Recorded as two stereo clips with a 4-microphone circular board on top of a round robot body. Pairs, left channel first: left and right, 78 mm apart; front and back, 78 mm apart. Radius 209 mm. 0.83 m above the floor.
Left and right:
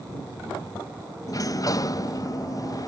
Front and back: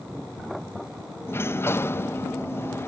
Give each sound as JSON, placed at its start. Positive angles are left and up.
{"t": 1.3, "sound": "a sliding door", "azimuth_deg": 55}